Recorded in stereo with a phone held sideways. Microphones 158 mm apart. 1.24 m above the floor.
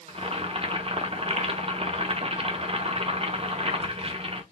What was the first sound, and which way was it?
Boiling, 40° right (ahead or behind).